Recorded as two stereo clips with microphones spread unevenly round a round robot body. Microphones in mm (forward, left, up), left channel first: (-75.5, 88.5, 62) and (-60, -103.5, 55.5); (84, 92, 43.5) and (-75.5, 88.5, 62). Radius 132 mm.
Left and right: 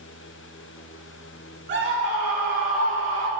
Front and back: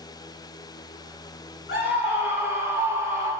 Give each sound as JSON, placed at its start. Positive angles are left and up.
{"t": 1.7, "sound": "a scream", "azimuth_deg": -40, "distance_m": 8.5}